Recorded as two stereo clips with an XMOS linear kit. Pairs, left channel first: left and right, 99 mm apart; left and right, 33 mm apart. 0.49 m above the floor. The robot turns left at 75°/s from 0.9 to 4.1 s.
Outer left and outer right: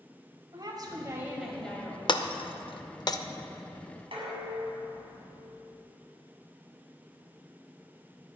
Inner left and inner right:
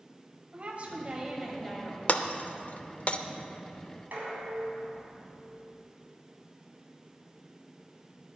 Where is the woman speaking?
130° right, 2 m; by 2.0 s 145° left, 2 m.